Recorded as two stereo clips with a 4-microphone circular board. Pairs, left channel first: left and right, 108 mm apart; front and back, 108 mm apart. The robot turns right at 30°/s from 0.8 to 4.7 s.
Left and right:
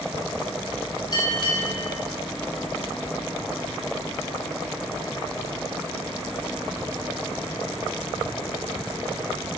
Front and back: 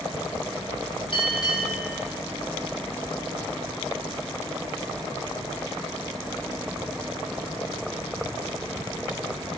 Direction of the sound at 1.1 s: 40° left.